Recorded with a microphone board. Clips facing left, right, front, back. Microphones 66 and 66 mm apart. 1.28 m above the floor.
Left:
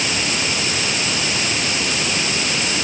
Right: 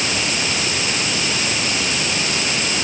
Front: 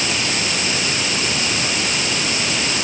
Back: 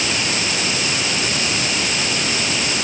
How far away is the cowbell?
I don't hear a cowbell.